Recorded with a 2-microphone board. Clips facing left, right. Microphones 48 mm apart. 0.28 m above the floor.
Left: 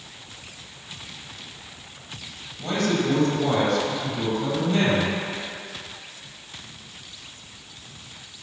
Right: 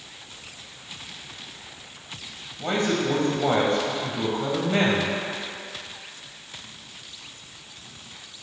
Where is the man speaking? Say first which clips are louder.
Even; 25° right (ahead or behind), 1.4 m.